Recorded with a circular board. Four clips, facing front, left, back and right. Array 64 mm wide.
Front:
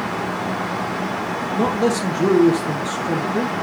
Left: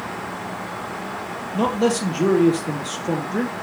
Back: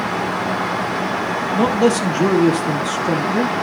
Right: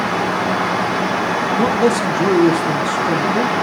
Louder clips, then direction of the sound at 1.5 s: Right 3 dB, back 3 dB; 155° left.